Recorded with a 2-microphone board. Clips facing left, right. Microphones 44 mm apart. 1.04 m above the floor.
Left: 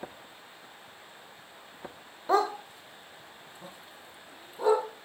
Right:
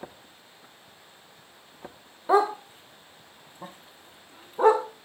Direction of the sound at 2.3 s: 10° right (ahead or behind).